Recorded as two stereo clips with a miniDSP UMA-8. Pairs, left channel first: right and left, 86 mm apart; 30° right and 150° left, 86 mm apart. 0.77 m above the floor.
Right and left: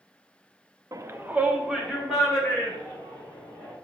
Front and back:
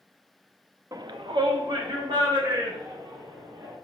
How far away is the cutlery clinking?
No cutlery clinking in this recording.